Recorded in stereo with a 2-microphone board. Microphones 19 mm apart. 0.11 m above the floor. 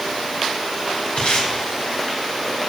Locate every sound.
1.2 s tape being pulled: 80° left, 4 m